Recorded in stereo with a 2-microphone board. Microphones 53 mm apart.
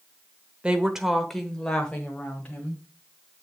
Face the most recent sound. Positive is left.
turn(degrees=25)  # may be behind; listen again after turning